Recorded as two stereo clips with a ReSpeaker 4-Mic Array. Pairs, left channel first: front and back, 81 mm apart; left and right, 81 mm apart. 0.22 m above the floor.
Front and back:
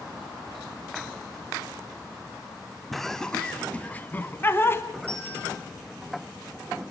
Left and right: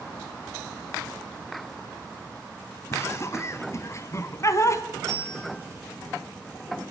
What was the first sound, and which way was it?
Laughter, 85° left.